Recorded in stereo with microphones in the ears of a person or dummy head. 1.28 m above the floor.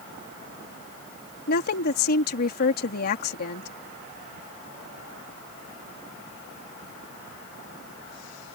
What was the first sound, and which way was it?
A woman speaking, 50° left (ahead or behind).